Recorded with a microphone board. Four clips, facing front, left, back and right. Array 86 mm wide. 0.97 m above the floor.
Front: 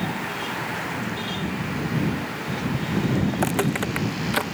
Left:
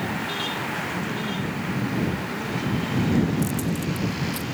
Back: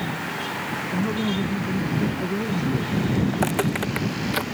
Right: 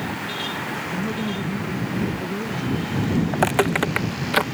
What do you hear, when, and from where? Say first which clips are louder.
0.9 s a man speaking: right 2 dB, back 5 dB; 155° right
3.3 s footsteps: right 6 dB, even; 90° right; by 4.4 s 80° right